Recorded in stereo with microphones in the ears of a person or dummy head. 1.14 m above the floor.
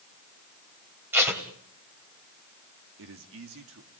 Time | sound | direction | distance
1.1 | tape being pulled | 10° right (ahead or behind) | 2.5 m
3.0 | a man speaking | 65° right (ahead or behind) | 2.5 m